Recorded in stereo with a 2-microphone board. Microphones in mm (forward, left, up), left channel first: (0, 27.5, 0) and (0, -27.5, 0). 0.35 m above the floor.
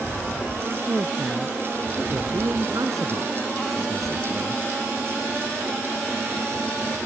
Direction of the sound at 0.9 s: 75° right (ahead or behind).